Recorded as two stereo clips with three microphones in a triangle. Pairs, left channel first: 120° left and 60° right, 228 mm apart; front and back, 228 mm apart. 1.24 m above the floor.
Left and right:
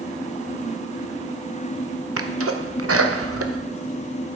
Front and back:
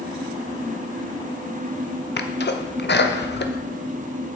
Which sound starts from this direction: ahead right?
A sneeze, at 2.2 s.